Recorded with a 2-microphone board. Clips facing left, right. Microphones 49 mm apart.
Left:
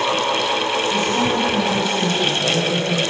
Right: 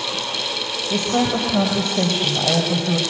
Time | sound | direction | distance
0.9 | a woman speaking | 75° right (ahead or behind) | 4.5 m